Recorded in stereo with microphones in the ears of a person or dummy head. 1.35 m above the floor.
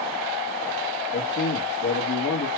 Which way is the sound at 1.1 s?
75° left (ahead or behind).